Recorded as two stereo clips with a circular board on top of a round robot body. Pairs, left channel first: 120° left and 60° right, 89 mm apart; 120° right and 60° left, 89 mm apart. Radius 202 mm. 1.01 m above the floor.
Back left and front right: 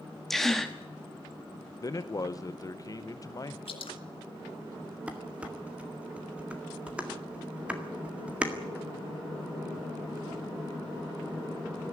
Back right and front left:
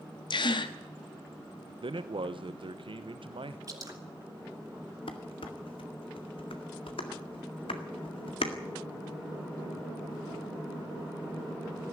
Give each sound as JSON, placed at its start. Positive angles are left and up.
{"t": 0.3, "sound": "a gasp", "azimuth_deg": -155, "distance_m": 1.1}
{"t": 1.8, "sound": "a man speaking", "azimuth_deg": 70, "distance_m": 1.1}
{"t": 3.7, "sound": "dripping", "azimuth_deg": 110, "distance_m": 3.5}
{"t": 5.1, "sound": "dishes clattering", "azimuth_deg": -135, "distance_m": 1.9}